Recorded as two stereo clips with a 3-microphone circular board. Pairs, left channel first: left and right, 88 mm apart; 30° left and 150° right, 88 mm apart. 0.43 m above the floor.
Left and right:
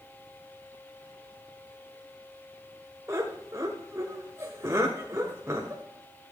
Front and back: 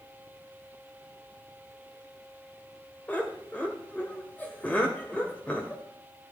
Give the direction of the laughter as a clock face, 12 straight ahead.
1 o'clock.